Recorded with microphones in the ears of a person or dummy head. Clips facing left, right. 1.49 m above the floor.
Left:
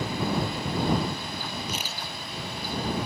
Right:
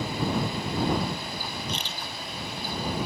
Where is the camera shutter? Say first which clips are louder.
Even; 5° left (ahead or behind).